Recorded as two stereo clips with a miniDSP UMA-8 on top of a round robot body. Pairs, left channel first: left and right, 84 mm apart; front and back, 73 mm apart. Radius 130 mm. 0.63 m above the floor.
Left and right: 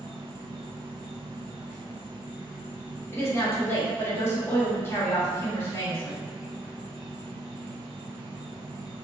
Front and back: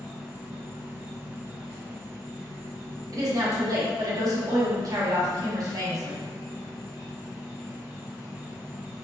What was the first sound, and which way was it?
An insect, 25° right.